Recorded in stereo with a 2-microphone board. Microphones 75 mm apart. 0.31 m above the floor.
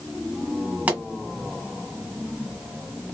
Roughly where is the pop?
Centre.